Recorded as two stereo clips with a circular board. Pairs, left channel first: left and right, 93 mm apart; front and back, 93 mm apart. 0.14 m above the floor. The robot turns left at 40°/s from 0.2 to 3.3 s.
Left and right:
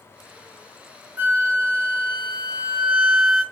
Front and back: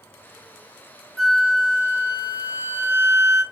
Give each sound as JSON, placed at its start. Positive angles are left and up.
{"t": 1.2, "sound": "a flute", "azimuth_deg": -85, "distance_m": 0.9}